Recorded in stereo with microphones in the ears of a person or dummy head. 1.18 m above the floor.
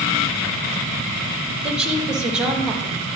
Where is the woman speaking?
5° right (ahead or behind), 1.3 m.